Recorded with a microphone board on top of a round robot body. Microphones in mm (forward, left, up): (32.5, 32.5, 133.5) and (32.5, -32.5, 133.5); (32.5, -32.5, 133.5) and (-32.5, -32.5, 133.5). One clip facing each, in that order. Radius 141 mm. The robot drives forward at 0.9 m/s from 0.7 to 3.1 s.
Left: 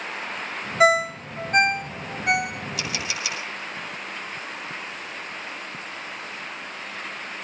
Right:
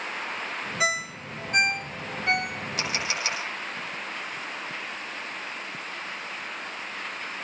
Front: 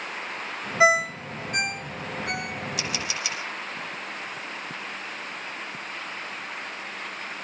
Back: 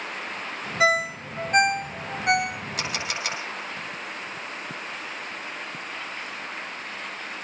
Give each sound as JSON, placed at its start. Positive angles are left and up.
{"t": 0.8, "sound": "a ringtone", "azimuth_deg": 60, "distance_m": 0.5}
{"t": 2.8, "sound": "a camera shutter", "azimuth_deg": -140, "distance_m": 5.5}